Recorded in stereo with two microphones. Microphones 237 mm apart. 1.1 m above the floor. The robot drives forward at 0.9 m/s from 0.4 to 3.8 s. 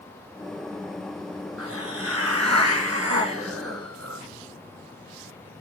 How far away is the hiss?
About 7.5 m.